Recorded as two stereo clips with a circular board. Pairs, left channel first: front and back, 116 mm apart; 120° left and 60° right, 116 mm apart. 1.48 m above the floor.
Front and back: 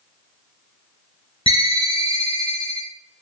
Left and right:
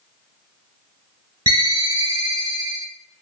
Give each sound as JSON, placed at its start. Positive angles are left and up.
{"t": 1.5, "sound": "a ringtone", "azimuth_deg": -15, "distance_m": 1.0}